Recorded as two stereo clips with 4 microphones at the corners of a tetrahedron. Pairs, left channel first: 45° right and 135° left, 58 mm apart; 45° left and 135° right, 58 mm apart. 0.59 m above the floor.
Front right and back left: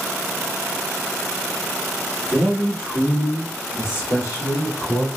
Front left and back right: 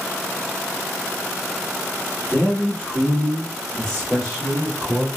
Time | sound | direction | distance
2.3 | a man speaking | 45° left | 1.4 m